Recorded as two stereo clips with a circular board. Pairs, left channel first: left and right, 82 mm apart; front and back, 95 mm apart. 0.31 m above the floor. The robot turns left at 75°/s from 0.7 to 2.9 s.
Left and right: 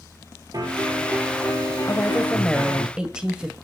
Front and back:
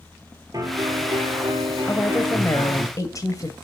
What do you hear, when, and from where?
0.5 s a piano: 130° right, 2.5 m; by 2.9 s 70° left, 2.5 m
1.9 s a woman speaking: 65° left, 1.6 m; by 3.5 s 15° right, 1.6 m